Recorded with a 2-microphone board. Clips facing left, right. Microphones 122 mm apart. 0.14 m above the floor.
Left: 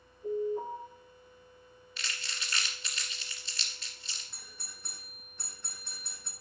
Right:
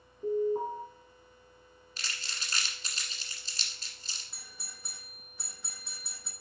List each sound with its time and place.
0.2 s an alarm: 70° right (ahead or behind), 4 m
2.0 s crumpling: 40° right (ahead or behind), 1.6 m
4.3 s a doorbell: 5° right (ahead or behind), 2 m